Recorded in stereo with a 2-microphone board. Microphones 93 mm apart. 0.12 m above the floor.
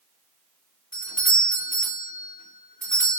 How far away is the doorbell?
About 2 m.